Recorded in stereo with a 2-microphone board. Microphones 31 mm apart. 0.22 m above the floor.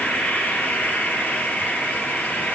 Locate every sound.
0.0 s an insect: 75° left (ahead or behind), 4 m